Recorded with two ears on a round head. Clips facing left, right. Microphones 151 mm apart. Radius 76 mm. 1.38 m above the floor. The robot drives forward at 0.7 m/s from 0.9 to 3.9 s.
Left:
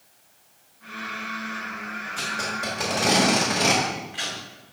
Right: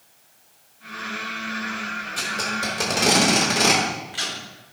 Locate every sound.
2.2 s tape being pulled: 40° right (ahead or behind), 3 m; by 4.8 s 60° right (ahead or behind), 2 m